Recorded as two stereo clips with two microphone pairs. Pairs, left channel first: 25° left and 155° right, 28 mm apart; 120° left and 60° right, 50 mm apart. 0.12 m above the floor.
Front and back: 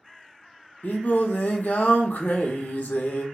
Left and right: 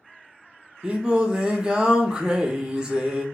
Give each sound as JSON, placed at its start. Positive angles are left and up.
{"t": 0.8, "sound": "singing", "azimuth_deg": 15, "distance_m": 0.6}